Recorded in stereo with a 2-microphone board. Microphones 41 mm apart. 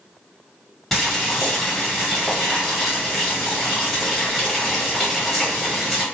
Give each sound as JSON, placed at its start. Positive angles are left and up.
{"t": 0.9, "sound": "boiling", "side_deg": 0, "distance_m": 1.6}